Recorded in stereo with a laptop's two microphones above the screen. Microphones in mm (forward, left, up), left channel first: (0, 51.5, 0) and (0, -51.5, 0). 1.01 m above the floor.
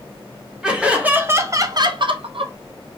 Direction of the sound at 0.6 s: 10° right (ahead or behind).